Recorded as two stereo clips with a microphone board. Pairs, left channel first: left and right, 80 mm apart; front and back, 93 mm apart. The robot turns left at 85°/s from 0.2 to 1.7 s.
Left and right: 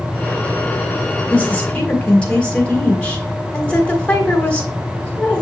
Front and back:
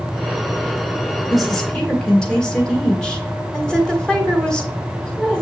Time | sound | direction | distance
1.3 | a woman speaking | 95° left | 1.3 m